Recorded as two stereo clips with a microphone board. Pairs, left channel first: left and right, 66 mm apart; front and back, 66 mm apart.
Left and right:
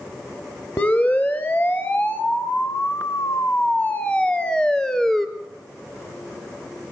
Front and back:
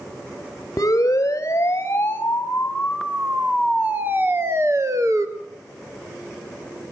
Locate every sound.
0.8 s a siren: 30° left, 2 m; by 5.3 s 175° left, 1.7 m